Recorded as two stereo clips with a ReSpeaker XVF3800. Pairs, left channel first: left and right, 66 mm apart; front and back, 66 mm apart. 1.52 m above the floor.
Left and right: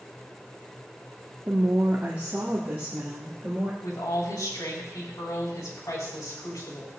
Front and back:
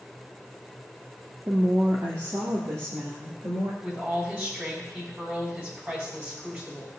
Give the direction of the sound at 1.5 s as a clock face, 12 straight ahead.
5 o'clock.